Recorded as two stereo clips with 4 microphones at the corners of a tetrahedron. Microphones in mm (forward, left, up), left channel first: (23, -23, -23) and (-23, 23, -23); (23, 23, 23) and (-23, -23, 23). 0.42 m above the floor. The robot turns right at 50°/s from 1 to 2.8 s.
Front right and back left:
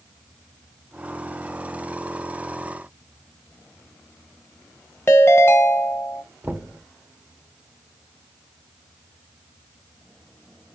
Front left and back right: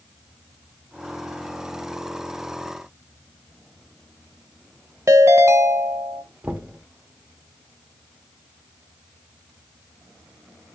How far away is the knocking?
About 0.7 m.